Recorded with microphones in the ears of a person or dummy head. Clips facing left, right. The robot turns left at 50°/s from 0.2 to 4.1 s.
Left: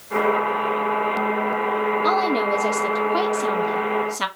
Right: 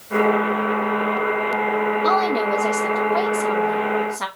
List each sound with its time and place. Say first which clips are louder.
2.0 s a woman speaking: even; 170° left, 0.7 m; by 4.3 s 65° left, 0.7 m